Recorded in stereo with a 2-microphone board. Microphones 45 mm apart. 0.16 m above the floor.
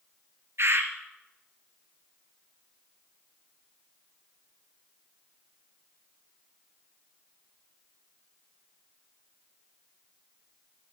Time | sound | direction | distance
0.6 | a bird | 65° right (ahead or behind) | 1.3 m